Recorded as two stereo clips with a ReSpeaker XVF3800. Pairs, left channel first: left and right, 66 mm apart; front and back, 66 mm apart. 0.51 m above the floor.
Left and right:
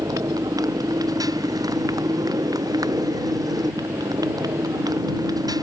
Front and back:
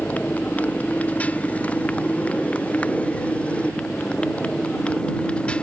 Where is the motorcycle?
65° right; by 5.6 s 75° right.